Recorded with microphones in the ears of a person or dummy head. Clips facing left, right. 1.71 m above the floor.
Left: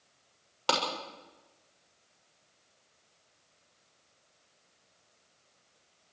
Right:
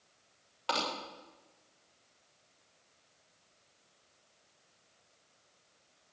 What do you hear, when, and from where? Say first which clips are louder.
0.7 s a clap: left 4 dB; 55° left (ahead or behind), 6.5 m